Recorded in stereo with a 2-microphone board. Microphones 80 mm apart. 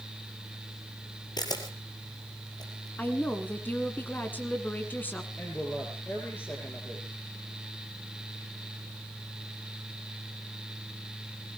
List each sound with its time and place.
1.4 s a camera shutter: 60° left (ahead or behind), 3 m
3.0 s a woman speaking: 25° left (ahead or behind), 2.0 m
5.4 s a woman speaking: 25° left (ahead or behind), 4.5 m